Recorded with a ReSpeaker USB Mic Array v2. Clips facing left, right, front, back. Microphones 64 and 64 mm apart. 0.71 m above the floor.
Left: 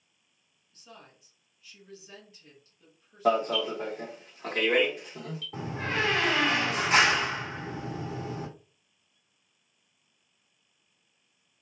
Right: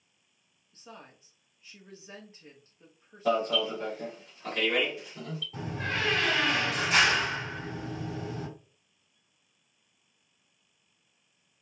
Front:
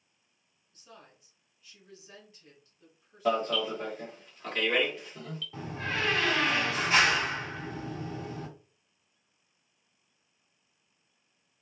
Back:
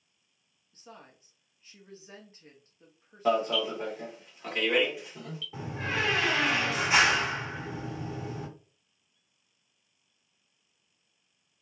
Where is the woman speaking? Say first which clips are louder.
Right 3 dB, back 3 dB; 135° right, 1.2 m.